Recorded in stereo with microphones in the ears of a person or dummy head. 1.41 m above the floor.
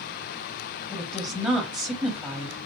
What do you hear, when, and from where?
0.9 s a woman speaking: 10° right (ahead or behind), 1.0 m